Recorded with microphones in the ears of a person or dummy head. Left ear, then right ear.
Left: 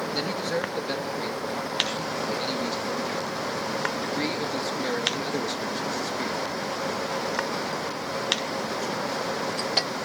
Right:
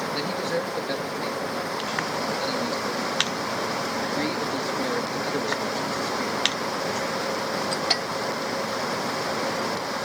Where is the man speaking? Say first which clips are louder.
Even; 5° left (ahead or behind), 2.0 m.